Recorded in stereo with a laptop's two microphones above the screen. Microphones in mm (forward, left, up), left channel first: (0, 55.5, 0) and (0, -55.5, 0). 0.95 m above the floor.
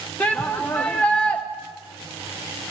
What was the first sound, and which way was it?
A shout, 15° left (ahead or behind).